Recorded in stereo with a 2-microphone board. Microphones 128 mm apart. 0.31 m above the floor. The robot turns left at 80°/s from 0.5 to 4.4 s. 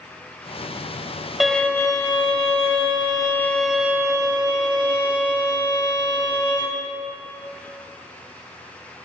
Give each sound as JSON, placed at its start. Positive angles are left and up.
{"t": 1.4, "sound": "a violin", "azimuth_deg": 180, "distance_m": 0.9}